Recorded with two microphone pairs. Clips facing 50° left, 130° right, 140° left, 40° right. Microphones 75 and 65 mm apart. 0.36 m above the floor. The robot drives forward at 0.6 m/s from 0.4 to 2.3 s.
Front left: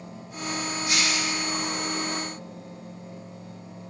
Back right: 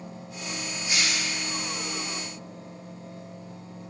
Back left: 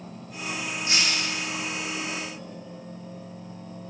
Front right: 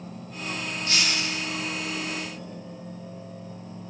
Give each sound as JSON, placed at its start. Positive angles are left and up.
{"t": 0.9, "sound": "breaking glass", "azimuth_deg": 70, "distance_m": 6.5}